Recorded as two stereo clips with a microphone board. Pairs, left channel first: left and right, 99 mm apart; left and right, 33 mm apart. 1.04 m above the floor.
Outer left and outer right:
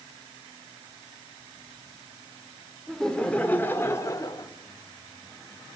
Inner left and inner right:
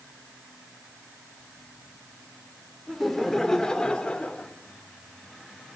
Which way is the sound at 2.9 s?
Centre (ahead or behind).